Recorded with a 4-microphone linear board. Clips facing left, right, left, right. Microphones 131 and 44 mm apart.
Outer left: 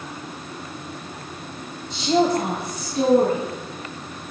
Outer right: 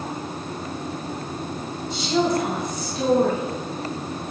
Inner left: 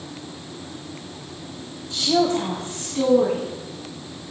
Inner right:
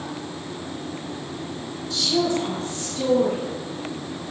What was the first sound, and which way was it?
A woman speaking, 40° left (ahead or behind).